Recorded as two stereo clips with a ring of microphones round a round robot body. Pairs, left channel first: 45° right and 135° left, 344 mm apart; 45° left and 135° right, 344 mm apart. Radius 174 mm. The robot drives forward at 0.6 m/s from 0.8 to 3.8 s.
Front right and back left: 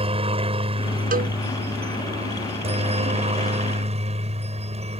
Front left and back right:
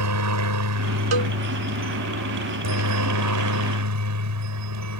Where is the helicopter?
155° right.